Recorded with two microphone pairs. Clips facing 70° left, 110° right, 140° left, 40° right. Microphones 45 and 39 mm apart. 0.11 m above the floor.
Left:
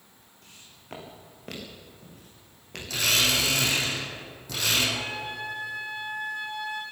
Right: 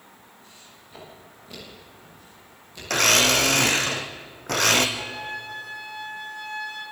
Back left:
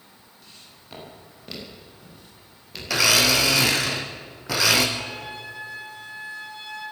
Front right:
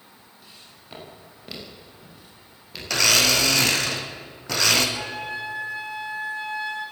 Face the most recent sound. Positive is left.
turn(degrees=5)